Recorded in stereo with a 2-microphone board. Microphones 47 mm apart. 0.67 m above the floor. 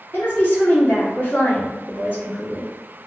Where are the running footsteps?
I don't hear running footsteps.